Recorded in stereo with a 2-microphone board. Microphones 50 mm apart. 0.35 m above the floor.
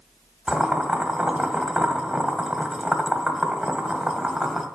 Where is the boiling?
10° right (ahead or behind), 1.5 m.